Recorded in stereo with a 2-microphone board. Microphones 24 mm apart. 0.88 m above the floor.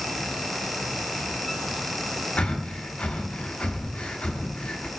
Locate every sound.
2.4 s breathing: 85° left, 1.0 m